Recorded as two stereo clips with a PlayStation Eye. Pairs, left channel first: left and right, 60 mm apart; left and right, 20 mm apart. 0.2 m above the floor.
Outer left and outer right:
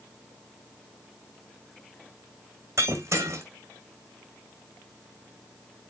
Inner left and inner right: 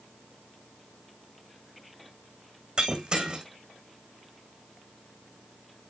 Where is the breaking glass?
45° right (ahead or behind), 2 m.